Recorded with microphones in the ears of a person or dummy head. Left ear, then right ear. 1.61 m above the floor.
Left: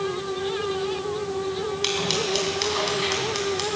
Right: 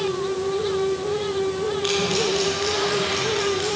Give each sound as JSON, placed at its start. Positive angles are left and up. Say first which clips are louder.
{"t": 1.8, "sound": "scissors", "louder": "right 2 dB", "side_deg": 65, "distance_m": 3.5}